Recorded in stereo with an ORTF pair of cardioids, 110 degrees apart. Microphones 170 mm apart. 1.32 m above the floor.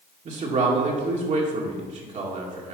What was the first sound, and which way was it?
A man speaking, 45° right.